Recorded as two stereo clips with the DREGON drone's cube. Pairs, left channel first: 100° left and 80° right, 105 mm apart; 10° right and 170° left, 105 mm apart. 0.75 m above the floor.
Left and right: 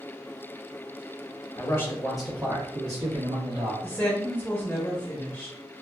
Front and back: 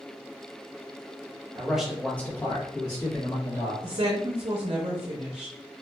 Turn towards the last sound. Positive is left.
turn(degrees=170)